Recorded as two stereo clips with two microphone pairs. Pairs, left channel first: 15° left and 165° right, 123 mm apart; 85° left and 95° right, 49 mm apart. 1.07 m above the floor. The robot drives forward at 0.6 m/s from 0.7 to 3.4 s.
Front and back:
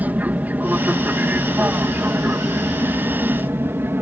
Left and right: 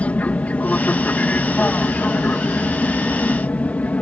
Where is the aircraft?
125° left; by 4.0 s 130° left.